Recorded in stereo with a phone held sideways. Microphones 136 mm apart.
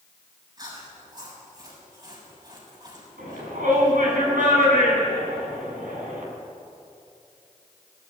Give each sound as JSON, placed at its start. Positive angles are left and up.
{"t": 0.6, "sound": "chewing", "side_deg": -30, "distance_m": 7.0}
{"t": 3.2, "sound": "a shout", "side_deg": -80, "distance_m": 8.5}